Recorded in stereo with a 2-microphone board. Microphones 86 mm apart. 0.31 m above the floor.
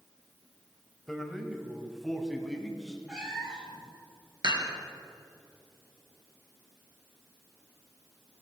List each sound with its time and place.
1.1 s a man speaking: 5° left (ahead or behind), 1.3 m; by 3.0 s centre (ahead or behind), 2.5 m
3.1 s a cat meowing: 10° right (ahead or behind), 4 m
4.4 s dishes clattering: 60° right (ahead or behind), 4 m